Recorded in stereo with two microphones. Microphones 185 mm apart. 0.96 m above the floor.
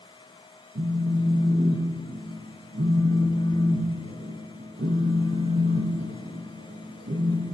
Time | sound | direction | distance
0.8 | a phone buzzing | 65° right (ahead or behind) | 0.7 m